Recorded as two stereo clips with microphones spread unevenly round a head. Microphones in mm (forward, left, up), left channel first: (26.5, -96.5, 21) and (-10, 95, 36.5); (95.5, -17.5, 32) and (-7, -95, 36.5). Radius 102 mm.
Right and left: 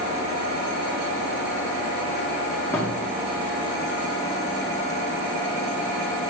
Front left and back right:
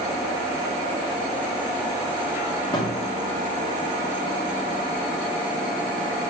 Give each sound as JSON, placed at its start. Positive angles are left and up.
{"t": 2.7, "sound": "a thud", "azimuth_deg": 5, "distance_m": 1.5}